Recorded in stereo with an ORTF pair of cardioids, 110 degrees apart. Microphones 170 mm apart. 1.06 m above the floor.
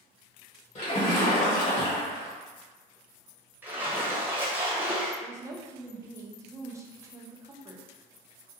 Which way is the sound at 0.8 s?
40° left.